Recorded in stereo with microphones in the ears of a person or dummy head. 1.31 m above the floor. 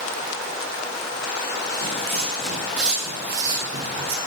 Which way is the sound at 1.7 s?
15° left (ahead or behind).